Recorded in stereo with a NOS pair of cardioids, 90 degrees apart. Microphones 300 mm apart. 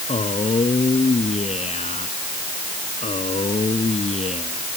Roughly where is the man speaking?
Ahead.